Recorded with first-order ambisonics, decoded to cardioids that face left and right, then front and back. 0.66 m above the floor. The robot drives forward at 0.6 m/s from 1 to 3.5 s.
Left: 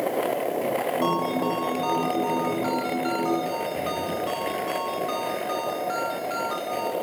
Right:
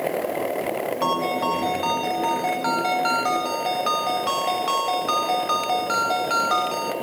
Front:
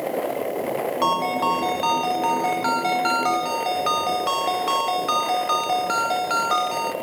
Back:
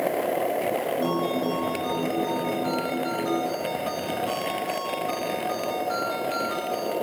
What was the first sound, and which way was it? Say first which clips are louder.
A ringtone: right 2 dB, front 5 dB; 20° right.